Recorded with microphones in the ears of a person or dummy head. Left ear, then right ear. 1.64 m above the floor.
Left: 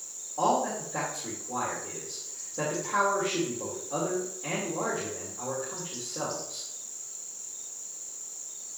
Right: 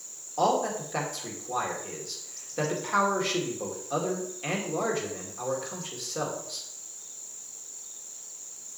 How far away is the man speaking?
About 2 m.